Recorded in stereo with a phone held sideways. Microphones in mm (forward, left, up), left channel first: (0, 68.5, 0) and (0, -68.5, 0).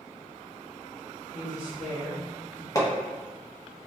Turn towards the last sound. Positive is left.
turn(degrees=25)  # may be behind; listen again after turning